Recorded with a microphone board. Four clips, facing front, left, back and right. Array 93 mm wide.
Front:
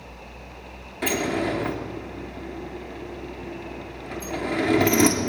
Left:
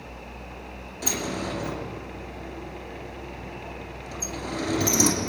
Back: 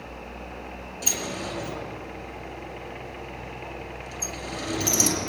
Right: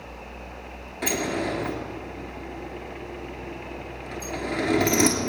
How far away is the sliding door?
About 3 m.